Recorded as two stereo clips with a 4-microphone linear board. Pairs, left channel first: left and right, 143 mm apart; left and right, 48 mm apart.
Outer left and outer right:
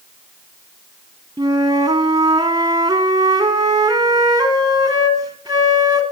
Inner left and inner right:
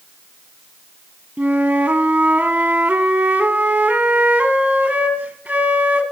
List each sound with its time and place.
1.4 s a flute: 25° right (ahead or behind), 1.3 m